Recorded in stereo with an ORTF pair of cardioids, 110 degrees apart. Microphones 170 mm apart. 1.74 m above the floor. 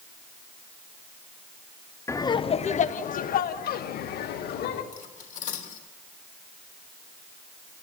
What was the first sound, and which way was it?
Laughter, 15° left.